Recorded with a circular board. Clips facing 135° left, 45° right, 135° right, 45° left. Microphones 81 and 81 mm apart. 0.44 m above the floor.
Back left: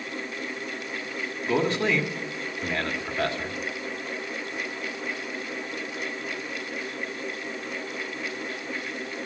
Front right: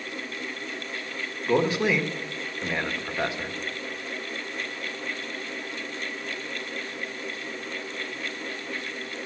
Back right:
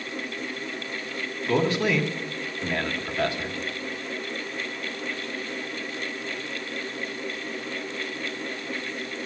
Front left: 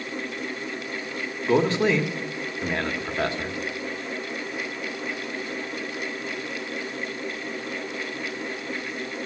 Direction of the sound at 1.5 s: 20° left.